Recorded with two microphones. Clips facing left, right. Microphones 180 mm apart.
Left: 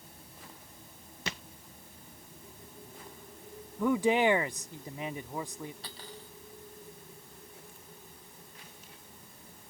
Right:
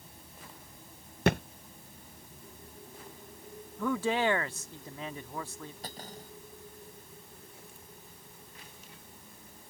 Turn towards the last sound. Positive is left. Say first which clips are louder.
# right 3 dB
turn(degrees=-45)  # may be behind; listen again after turning